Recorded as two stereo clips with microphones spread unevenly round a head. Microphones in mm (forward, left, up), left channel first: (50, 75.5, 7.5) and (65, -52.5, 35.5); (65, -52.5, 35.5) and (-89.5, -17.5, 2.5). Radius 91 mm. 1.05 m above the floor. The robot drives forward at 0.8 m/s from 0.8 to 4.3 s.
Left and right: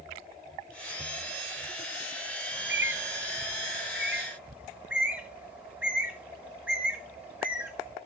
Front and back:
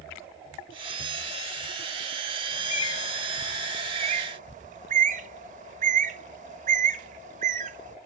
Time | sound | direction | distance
2.5 | a bird | 25° right | 1.0 m